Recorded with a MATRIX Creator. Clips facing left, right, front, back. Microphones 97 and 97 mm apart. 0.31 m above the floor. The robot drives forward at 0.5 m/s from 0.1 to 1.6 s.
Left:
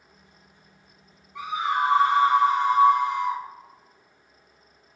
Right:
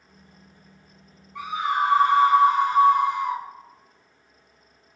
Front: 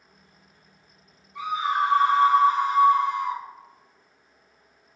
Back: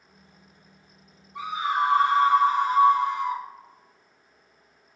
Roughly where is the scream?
Behind left.